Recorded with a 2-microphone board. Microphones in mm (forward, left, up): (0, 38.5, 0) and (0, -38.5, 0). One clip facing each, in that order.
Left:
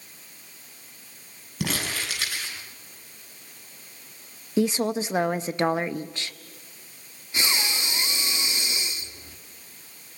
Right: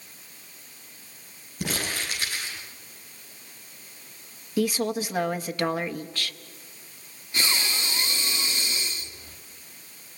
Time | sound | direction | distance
1.6 | crumpling | 85° left | 9 m
4.6 | a woman speaking | 25° left (ahead or behind) | 0.6 m
7.3 | breathing | 20° left (ahead or behind) | 1.3 m